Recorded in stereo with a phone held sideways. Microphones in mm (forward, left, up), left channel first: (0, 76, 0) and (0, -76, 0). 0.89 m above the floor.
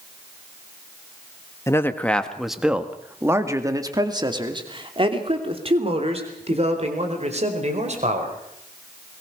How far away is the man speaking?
About 1.5 m.